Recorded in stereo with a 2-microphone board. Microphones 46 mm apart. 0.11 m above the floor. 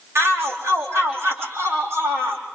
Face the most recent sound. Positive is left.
turn(degrees=-80)